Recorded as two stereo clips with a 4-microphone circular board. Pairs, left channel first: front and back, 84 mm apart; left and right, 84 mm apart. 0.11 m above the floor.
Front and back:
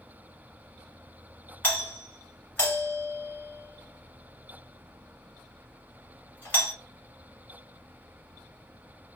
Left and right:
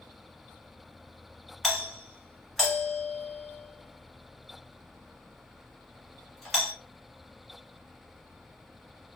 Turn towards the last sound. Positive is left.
turn(degrees=0)